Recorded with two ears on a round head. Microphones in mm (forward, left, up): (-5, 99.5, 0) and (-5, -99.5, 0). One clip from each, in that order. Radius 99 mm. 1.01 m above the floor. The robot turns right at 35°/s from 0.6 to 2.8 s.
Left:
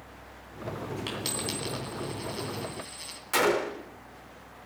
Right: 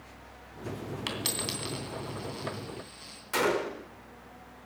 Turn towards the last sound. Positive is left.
turn(degrees=20)  # may be behind; listen again after turning